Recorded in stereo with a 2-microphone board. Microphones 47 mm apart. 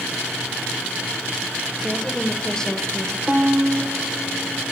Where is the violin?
20° right (ahead or behind), 1.7 m.